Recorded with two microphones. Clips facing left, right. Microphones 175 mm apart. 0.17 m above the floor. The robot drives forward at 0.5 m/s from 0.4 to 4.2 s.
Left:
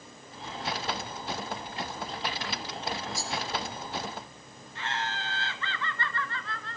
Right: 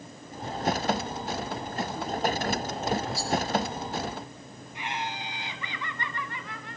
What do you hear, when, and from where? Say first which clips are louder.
3.1 s a rattle: right 4 dB; 45° left (ahead or behind), 4.5 m
4.8 s laughter: even; 15° right (ahead or behind), 2.0 m